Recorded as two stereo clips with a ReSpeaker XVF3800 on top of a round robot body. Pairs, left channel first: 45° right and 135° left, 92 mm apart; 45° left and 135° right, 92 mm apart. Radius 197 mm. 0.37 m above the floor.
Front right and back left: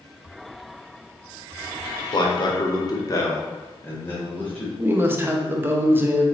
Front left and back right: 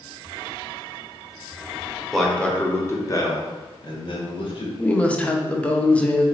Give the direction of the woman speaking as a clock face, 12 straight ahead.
9 o'clock.